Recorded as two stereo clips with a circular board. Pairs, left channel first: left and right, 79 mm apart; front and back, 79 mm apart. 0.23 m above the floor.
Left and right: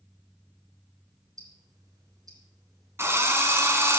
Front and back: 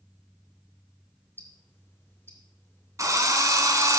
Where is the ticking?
60° right, 3 m.